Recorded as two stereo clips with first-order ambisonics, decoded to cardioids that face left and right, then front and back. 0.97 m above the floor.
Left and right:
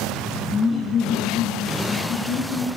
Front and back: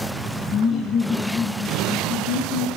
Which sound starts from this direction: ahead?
Laughter, at 0.5 s.